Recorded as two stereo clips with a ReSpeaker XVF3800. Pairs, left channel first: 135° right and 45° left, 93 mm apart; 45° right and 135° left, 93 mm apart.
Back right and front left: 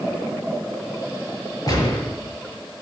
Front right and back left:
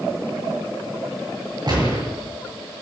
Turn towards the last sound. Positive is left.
turn(degrees=175)